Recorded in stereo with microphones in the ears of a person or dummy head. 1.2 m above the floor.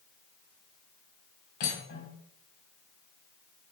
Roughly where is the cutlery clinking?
Left.